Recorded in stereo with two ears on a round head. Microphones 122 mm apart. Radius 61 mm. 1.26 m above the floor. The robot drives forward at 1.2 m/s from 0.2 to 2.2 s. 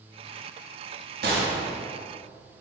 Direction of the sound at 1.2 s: 75° right (ahead or behind).